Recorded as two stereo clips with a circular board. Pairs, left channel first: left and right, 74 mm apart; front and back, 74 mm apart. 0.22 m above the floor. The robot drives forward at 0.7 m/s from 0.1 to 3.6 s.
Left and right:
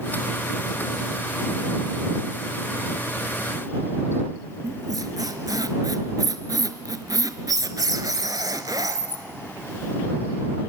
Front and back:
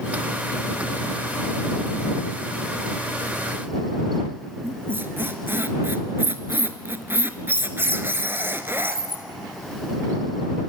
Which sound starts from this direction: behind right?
A squeak, at 4.6 s.